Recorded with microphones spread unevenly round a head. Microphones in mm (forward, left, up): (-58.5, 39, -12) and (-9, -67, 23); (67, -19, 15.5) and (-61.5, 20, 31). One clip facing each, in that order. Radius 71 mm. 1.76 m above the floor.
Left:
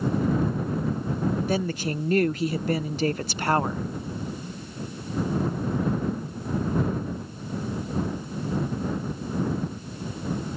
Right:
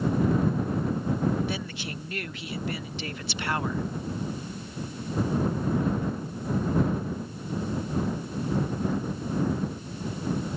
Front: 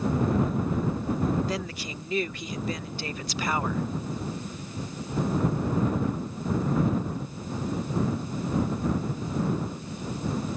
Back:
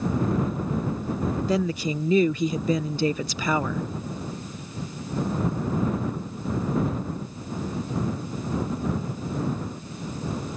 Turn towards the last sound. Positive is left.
turn(degrees=170)